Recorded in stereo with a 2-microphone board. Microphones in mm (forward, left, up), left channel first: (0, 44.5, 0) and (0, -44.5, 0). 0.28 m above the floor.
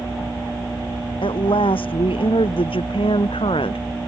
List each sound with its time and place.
1.2 s a woman speaking: 80° left; by 4.1 s 85° left